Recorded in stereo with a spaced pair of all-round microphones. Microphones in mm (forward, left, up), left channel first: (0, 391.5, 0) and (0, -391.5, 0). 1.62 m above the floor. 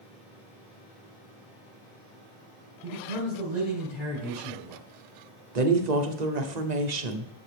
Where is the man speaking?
80° left, 5.5 m.